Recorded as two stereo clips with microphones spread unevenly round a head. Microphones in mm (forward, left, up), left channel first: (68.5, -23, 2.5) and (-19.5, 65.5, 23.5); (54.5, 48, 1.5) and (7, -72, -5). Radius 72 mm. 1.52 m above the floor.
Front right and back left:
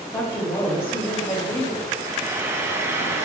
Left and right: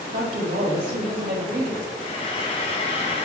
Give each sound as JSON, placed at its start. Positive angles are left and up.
{"t": 0.1, "sound": "a woman speaking", "azimuth_deg": -105, "distance_m": 1.6}
{"t": 2.0, "sound": "frying", "azimuth_deg": 80, "distance_m": 0.6}